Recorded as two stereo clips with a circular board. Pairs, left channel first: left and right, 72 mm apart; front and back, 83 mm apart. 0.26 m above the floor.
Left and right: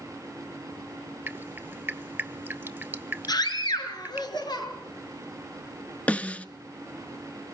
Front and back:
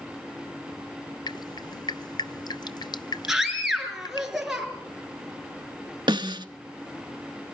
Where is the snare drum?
160° left, 0.9 m.